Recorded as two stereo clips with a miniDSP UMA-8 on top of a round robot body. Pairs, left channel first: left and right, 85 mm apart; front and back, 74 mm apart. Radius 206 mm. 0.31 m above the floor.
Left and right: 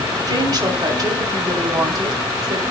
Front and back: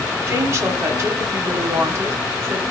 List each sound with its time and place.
0.3 s a woman speaking: 130° right, 3.5 m